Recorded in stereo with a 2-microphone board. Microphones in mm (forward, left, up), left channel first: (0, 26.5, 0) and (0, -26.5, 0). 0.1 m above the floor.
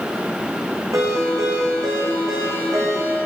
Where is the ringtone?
80° right, 3.5 m.